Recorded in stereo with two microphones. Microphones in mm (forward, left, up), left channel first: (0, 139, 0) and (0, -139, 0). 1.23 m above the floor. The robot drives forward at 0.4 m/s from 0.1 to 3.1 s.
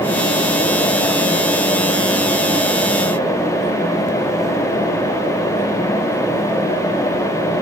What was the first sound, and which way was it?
Only background noise.